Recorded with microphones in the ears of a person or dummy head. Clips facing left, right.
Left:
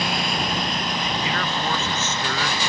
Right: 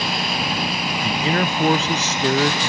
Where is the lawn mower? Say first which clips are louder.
Even; 5° right (ahead or behind); by 2.7 s 20° right (ahead or behind).